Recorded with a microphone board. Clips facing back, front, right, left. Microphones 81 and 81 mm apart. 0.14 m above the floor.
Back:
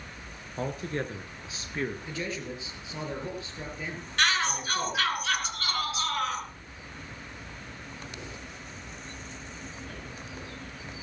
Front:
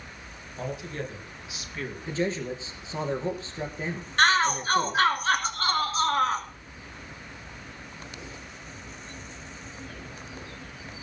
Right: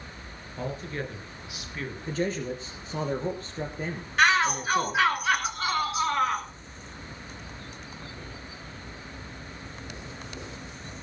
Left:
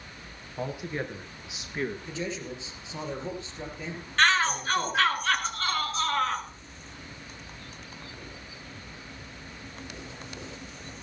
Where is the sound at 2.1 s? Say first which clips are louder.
Front 6 dB, right 5 dB; 55° right, 3 m.